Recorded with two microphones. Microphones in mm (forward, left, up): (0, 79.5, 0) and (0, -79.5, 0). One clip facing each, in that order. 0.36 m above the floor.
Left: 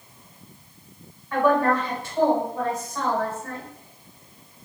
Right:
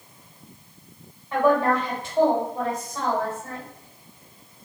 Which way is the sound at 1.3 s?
20° right (ahead or behind).